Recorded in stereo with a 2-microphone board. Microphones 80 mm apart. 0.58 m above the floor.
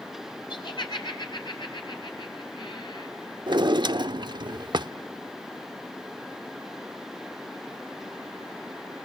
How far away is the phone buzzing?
I don't hear a phone buzzing.